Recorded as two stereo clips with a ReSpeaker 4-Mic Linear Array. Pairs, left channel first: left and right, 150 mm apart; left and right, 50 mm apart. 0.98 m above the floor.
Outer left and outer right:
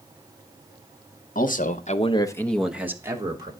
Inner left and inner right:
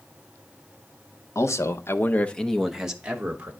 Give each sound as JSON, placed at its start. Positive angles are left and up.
{"t": 1.4, "sound": "a man speaking", "side_deg": 70, "distance_m": 1.3}